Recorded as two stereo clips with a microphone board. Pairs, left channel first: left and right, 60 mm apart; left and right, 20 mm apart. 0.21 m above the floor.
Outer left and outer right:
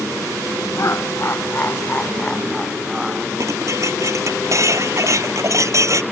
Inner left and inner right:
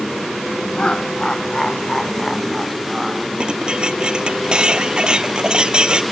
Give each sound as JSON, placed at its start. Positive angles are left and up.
{"t": 0.8, "sound": "laughter", "side_deg": 55}
{"t": 3.4, "sound": "dishes clattering", "side_deg": -55}